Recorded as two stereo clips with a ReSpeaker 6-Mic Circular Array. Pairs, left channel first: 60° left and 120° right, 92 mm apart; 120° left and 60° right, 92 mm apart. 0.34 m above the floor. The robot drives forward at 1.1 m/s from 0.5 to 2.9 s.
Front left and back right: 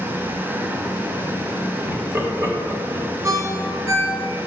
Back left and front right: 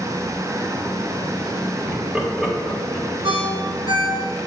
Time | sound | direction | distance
1.9 | laughter | 90° right | 1.2 m
3.2 | a ringtone | 70° right | 1.8 m